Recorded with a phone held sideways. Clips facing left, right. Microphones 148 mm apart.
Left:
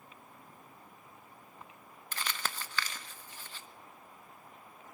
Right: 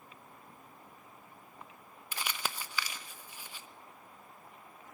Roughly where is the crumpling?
Centre.